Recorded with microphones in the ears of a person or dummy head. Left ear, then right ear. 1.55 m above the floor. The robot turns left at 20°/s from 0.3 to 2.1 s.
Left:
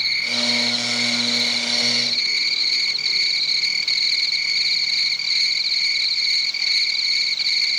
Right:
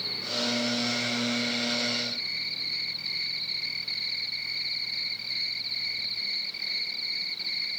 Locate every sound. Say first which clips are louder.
0.0 s an insect: left 10 dB; 120° left; by 7.8 s 85° left